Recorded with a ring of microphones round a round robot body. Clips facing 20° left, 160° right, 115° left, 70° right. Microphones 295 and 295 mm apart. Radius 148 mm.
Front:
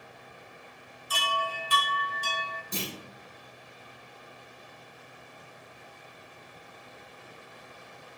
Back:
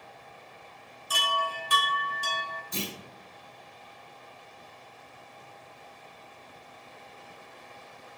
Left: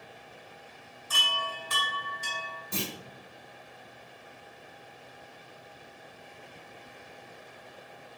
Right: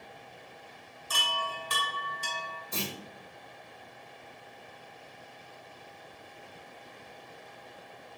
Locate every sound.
1.1 s a chime: 120° right, 0.7 m
2.7 s a clunk: 65° left, 1.3 m